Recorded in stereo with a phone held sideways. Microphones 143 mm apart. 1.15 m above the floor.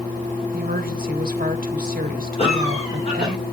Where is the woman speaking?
75° right (ahead or behind), 1.3 m.